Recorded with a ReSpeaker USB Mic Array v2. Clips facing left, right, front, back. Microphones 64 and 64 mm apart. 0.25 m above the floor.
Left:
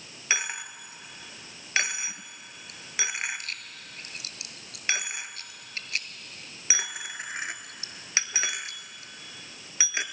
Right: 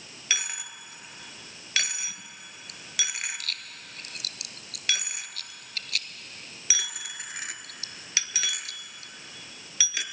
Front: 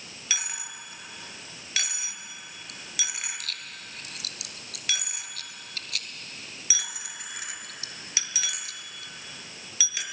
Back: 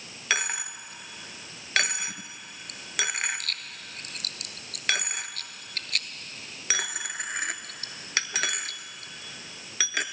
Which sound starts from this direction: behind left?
A dropped coin, at 0.3 s.